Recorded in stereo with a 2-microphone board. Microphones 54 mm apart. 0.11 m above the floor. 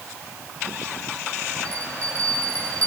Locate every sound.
1.6 s a bell: 25° left (ahead or behind), 6.5 m